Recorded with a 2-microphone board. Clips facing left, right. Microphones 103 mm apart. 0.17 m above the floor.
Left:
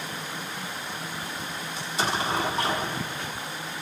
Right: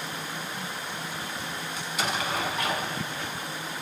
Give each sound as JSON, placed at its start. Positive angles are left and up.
{"t": 1.8, "sound": "an explosion", "side_deg": 35, "distance_m": 0.6}